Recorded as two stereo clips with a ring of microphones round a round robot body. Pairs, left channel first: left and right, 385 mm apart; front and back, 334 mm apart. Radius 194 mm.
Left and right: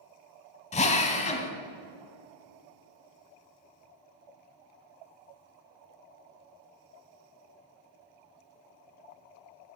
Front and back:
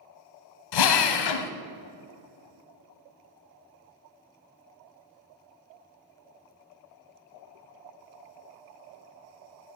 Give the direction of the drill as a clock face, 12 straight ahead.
11 o'clock.